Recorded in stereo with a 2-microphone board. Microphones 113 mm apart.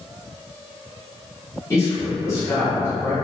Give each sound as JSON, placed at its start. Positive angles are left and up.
{"t": 1.7, "sound": "a man speaking", "side_deg": 25, "distance_m": 1.2}